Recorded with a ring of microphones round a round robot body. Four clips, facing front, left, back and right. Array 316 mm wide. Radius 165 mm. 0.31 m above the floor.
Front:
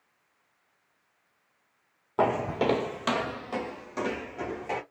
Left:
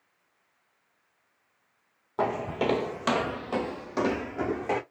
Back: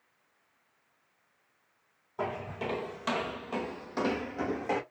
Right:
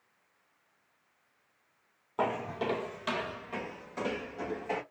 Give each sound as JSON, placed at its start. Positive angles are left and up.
{"t": 2.2, "sound": "footsteps", "azimuth_deg": 10, "distance_m": 0.6}